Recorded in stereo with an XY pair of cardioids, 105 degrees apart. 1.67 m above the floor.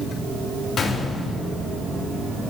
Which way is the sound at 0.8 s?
50° left.